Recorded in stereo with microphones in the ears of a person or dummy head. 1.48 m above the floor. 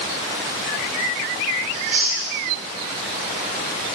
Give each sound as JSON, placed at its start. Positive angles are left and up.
{"t": 1.7, "sound": "chewing", "side_deg": -40, "distance_m": 1.3}